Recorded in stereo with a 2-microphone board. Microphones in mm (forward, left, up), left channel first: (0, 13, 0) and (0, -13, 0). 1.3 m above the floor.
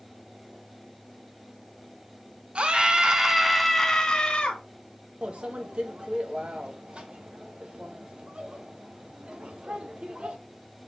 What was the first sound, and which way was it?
A scream, 45° right (ahead or behind).